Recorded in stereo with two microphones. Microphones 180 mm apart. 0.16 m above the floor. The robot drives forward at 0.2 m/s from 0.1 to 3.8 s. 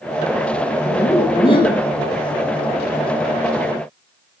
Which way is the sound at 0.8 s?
30° left (ahead or behind).